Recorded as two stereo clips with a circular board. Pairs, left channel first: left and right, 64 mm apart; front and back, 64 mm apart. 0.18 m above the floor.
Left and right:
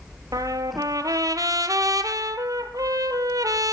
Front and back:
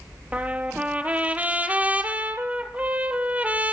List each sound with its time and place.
0.3 s a trumpet: 110° right, 0.7 m